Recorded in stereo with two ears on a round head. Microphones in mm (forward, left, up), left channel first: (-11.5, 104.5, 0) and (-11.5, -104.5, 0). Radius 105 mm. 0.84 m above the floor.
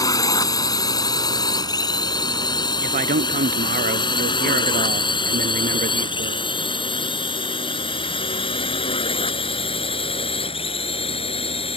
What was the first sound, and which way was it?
A drone, 15° left (ahead or behind).